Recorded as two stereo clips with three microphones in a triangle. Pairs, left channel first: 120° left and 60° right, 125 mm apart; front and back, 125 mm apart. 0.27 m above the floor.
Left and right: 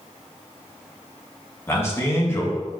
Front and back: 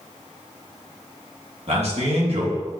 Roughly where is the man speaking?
Behind.